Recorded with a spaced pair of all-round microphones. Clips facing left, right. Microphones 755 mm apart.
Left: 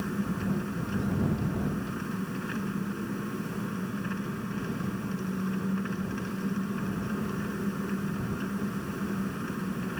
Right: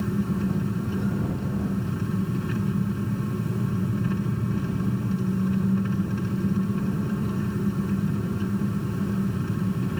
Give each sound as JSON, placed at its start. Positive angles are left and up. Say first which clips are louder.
{"t": 0.0, "sound": "an engine running", "louder": "right 5 dB", "side_deg": -65}